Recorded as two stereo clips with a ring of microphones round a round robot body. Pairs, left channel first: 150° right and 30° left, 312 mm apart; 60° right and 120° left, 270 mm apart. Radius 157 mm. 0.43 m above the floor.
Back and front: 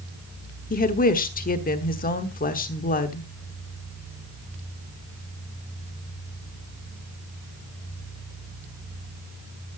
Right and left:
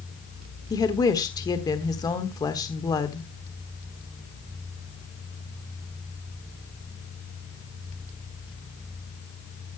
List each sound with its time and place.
0.7 s a woman speaking: 125° right, 1.2 m